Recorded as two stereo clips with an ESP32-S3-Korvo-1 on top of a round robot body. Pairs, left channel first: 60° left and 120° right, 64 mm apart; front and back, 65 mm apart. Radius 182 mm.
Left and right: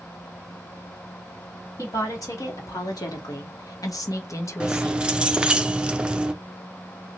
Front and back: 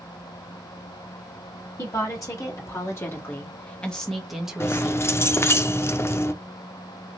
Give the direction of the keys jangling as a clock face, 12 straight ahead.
2 o'clock.